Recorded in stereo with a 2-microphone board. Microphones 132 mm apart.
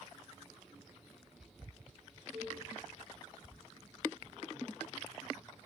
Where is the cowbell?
5° right (ahead or behind), 1.5 m.